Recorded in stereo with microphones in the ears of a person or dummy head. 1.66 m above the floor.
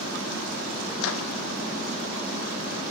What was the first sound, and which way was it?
A microwave, 75° left (ahead or behind).